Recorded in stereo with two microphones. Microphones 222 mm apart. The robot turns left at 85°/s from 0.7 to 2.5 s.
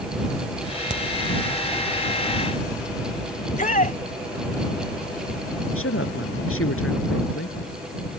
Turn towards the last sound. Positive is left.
turn(degrees=70)  # may be behind; listen again after turning